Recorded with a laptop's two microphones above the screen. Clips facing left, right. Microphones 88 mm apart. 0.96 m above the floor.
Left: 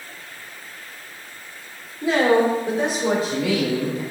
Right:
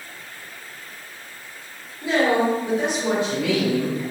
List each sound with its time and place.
2.0 s a woman speaking: 45° left (ahead or behind), 3 m; by 4.0 s 35° left (ahead or behind), 4 m